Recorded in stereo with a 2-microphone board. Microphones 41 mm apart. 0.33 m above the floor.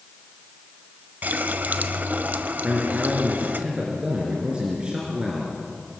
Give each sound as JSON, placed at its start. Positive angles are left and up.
{"t": 1.2, "sound": "a running tap", "side_deg": -45, "distance_m": 1.0}
{"t": 2.6, "sound": "a man speaking", "side_deg": -25, "distance_m": 4.5}